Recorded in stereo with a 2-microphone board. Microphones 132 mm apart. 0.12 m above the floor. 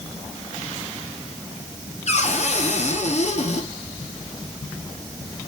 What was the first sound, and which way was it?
A cupboard door, 55° left (ahead or behind).